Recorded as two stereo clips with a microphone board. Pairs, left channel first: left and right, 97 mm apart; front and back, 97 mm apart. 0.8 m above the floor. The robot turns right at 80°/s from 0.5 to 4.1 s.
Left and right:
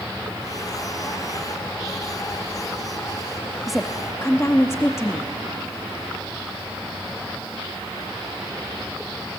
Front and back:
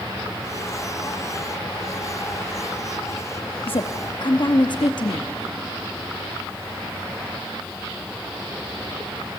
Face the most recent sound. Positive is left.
turn(degrees=30)